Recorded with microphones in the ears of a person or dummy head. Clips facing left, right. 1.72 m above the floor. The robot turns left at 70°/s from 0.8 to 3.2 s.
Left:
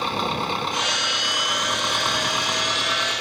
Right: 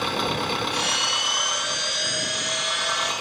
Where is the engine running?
175° right; by 3.2 s 20° left.